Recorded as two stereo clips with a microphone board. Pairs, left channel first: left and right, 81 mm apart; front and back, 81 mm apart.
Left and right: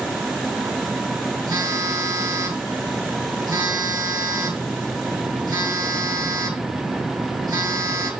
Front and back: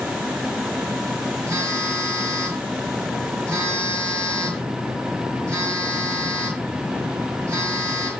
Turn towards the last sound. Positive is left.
turn(degrees=-125)